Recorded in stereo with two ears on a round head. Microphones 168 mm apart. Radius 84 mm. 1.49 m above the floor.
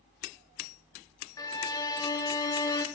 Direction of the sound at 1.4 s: 20° left (ahead or behind).